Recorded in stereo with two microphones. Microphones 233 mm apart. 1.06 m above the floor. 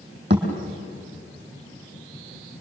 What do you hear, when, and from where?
0.3 s a thud: 50° right (ahead or behind), 4.5 m